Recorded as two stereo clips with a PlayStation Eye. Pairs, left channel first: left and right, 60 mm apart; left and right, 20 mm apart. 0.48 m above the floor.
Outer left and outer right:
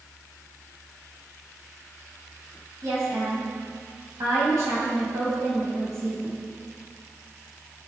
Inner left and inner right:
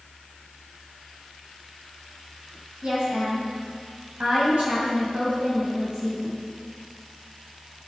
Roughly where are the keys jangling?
No keys jangling in this recording.